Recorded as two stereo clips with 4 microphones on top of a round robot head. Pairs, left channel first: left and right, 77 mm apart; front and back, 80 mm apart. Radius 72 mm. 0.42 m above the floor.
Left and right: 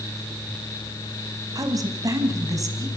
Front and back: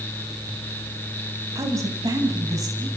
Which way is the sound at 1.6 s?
125° right.